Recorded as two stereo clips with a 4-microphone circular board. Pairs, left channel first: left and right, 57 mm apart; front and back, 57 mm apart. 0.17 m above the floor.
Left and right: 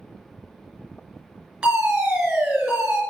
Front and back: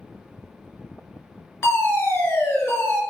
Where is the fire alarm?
20° right, 4 m.